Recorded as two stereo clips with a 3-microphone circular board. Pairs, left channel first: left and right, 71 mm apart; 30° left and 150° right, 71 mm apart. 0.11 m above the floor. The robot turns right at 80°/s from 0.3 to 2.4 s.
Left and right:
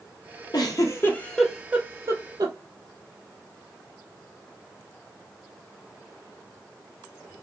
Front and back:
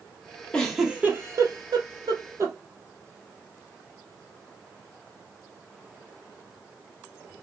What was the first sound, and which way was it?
A giggle, 105° left.